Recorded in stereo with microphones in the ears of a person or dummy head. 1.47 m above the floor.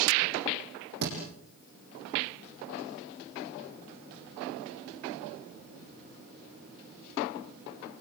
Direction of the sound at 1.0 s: 55° right (ahead or behind).